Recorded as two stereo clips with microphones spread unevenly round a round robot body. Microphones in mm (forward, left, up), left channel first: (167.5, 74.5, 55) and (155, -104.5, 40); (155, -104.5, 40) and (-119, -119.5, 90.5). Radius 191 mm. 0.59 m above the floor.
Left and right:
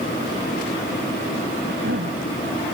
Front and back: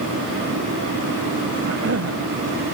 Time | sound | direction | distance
1.6 | a cough | 140° right | ?